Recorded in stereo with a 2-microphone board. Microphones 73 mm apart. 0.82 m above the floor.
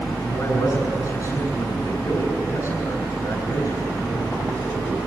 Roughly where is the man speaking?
Left.